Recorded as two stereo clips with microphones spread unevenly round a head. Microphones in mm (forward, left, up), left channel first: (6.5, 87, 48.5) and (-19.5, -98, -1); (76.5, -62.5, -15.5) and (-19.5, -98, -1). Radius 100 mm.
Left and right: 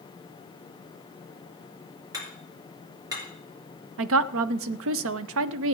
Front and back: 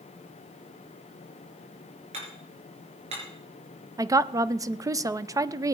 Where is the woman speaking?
100° right, 0.6 m.